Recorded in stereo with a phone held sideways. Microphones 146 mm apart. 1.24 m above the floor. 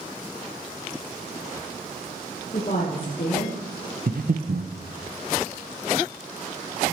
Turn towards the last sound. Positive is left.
turn(degrees=-65)  # may be behind; listen again after turning